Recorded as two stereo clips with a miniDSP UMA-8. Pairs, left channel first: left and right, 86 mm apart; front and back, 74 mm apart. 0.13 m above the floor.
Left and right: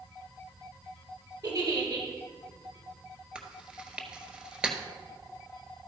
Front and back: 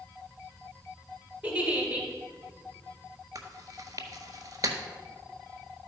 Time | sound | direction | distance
1.4 | a giggle | 110° right | 2.5 m
3.4 | chewing | 165° right | 1.2 m